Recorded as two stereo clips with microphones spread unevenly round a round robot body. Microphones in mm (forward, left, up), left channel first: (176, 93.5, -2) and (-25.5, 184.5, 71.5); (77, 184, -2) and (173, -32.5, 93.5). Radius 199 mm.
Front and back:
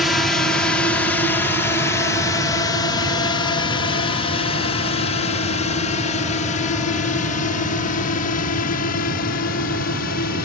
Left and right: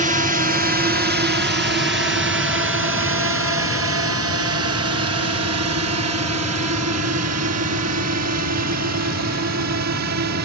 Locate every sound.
0.0 s a drone: 5° right; by 10.4 s 55° right